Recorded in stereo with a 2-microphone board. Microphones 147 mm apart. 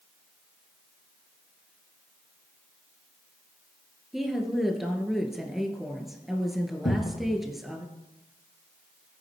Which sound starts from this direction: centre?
A woman speaking, at 4.1 s.